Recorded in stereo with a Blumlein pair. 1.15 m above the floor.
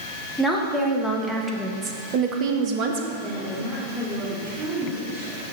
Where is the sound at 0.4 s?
5° left, 1.9 m; by 3.1 s 50° right, 1.2 m.